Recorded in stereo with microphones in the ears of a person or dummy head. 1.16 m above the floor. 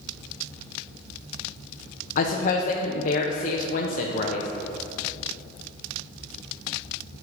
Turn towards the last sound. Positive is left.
turn(degrees=50)  # may be behind; listen again after turning